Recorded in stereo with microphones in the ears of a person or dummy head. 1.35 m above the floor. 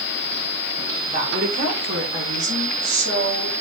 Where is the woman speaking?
55° right (ahead or behind), 3 m; by 3.5 s 80° right, 4.5 m.